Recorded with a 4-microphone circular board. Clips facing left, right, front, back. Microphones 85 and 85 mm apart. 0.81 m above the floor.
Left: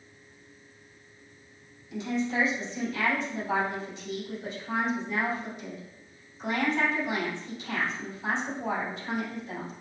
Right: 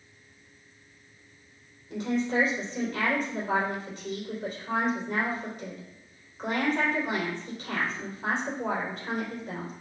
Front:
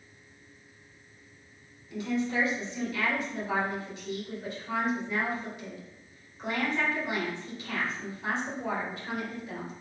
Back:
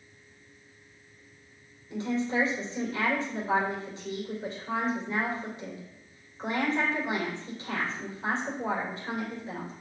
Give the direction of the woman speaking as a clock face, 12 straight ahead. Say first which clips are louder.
Right 2 dB, back 1 dB; 4 o'clock.